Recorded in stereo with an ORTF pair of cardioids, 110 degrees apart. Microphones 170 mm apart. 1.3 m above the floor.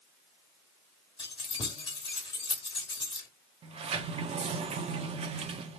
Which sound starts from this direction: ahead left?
Keys jangling, at 1.2 s.